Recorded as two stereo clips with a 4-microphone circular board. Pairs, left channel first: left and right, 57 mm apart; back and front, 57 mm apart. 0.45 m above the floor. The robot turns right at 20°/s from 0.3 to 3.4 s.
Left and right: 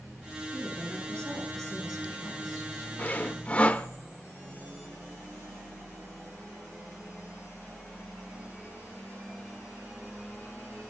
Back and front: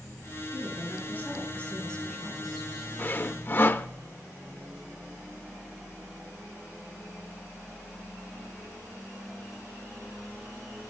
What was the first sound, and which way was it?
A woman speaking, 135° right.